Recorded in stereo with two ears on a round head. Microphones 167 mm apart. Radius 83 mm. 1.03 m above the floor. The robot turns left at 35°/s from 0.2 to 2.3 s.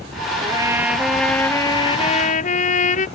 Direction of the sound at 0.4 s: 155° right.